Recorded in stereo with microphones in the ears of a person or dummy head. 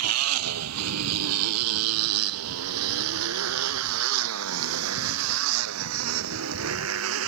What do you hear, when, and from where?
0.0 s a motorcycle: 90° right; by 7.3 s 80° right